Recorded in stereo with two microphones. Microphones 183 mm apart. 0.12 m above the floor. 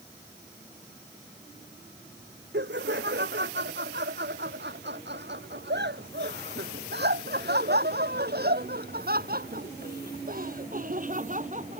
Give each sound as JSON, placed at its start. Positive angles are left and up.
{"t": 2.5, "sound": "laughter", "side_deg": -75}